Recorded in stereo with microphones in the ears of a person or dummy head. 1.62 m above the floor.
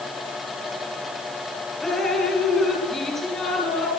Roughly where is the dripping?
Centre.